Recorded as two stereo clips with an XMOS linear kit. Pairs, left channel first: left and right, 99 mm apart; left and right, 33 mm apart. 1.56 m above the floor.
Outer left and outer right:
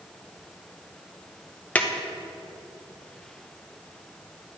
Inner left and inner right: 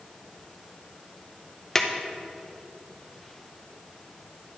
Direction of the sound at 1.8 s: 15° left (ahead or behind).